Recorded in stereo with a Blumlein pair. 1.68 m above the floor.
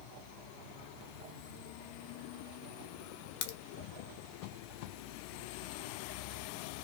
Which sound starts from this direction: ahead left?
A crack, at 3.4 s.